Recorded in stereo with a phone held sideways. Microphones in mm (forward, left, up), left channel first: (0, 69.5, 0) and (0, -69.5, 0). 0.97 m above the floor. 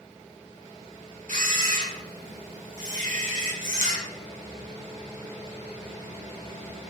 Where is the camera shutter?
75° right (ahead or behind), 3.5 m.